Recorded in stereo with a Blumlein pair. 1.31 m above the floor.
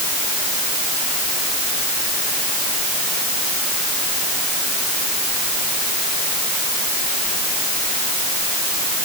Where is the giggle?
I don't hear a giggle.